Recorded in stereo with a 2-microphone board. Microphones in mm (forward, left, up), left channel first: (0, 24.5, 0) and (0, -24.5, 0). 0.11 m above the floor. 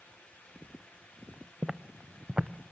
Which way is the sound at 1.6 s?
15° right (ahead or behind).